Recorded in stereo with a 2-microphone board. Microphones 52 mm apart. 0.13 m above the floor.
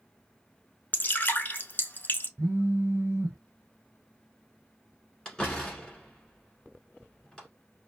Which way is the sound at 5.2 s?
15° left (ahead or behind).